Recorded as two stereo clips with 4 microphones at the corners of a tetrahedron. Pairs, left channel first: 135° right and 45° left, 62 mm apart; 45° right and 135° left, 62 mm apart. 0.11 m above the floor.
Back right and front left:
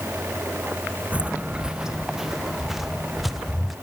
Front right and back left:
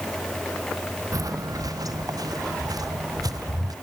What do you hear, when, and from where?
1.1 s footsteps: 110° left; by 3.7 s 135° left